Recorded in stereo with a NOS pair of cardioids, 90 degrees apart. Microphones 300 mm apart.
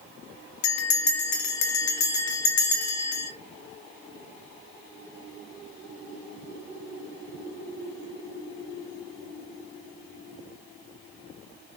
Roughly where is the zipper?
I don't hear a zipper.